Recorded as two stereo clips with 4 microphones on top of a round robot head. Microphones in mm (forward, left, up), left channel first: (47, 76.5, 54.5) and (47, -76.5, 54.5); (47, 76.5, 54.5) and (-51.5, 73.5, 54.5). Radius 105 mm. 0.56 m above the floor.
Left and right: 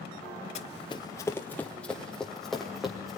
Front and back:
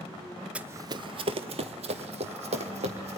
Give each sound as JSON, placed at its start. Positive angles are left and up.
{"t": 0.6, "sound": "running footsteps", "azimuth_deg": 115, "distance_m": 0.5}